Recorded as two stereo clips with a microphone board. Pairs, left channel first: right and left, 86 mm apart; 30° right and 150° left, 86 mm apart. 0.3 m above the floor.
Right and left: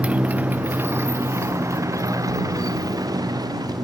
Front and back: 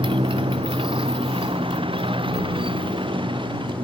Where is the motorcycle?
165° left; by 3.9 s 130° left.